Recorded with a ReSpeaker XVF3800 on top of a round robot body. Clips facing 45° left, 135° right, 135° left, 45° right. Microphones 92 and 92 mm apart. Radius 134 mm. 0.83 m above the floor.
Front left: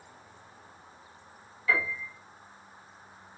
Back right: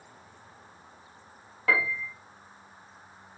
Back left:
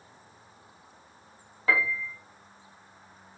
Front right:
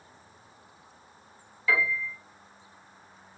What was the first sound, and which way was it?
A piano, 170° right.